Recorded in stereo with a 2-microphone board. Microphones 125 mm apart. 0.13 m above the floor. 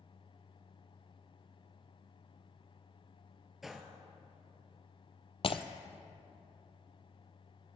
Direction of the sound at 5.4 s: 50° left (ahead or behind).